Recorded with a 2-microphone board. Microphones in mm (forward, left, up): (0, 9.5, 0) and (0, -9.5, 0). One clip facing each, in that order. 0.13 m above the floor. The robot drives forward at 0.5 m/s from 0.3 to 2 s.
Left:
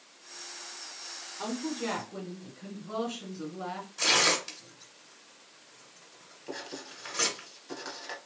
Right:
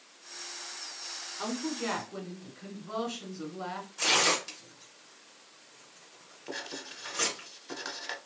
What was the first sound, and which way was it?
A woman speaking, 25° right (ahead or behind).